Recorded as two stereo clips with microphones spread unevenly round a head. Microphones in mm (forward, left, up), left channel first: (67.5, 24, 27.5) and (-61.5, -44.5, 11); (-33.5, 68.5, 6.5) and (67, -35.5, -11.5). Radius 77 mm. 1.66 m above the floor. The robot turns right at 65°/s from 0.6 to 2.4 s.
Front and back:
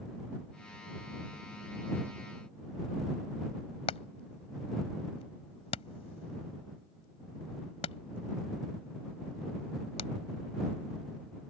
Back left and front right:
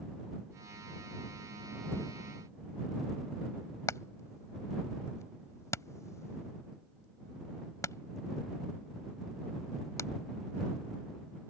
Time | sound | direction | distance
3.9 | hammering | 75° left | ?